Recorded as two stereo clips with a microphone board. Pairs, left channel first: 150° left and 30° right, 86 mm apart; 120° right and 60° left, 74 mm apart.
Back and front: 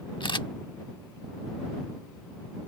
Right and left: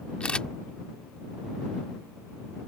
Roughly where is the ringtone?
No ringtone in this recording.